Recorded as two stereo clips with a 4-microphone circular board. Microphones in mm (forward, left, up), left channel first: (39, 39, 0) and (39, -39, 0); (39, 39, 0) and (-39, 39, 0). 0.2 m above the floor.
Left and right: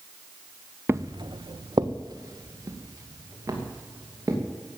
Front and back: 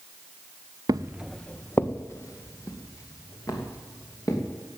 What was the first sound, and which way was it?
Footsteps, 150° right.